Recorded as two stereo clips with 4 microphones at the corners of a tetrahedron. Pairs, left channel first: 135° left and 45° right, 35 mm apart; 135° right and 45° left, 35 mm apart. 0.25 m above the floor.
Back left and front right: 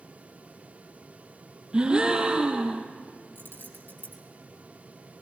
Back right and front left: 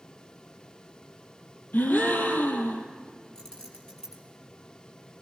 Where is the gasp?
110° right, 3 m.